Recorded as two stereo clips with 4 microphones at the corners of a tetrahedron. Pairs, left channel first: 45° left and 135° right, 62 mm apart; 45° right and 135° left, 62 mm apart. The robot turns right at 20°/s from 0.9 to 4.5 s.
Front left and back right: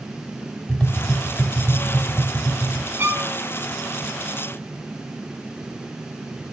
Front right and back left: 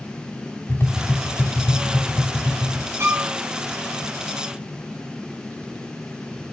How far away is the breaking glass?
I don't hear breaking glass.